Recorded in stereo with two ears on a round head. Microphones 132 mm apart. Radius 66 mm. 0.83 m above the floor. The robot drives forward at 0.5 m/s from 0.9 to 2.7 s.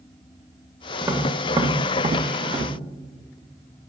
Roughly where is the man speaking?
I don't hear a man speaking.